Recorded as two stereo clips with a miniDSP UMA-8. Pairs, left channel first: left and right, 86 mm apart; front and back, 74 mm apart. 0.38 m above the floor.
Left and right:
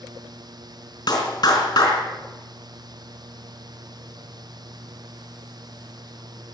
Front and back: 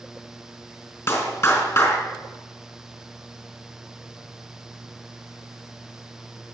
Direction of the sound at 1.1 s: 50° left.